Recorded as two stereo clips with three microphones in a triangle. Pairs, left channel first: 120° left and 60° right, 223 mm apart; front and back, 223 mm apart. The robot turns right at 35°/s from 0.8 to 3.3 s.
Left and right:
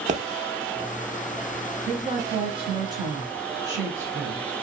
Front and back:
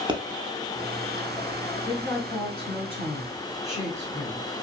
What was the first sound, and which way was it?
A pop, 115° right.